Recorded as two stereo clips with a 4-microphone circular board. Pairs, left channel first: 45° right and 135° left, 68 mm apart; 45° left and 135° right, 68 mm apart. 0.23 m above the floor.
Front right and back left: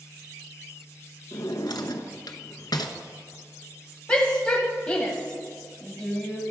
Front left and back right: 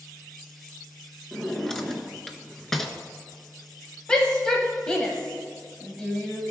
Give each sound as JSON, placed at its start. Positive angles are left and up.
{"t": 1.3, "sound": "a drawer", "azimuth_deg": -40, "distance_m": 0.7}
{"t": 4.1, "sound": "a shout", "azimuth_deg": -5, "distance_m": 0.9}